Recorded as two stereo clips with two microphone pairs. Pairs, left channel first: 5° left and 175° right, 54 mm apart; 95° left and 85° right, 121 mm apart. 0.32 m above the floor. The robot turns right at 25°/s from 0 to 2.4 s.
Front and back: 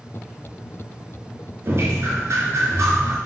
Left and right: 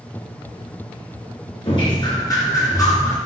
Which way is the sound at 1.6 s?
140° left.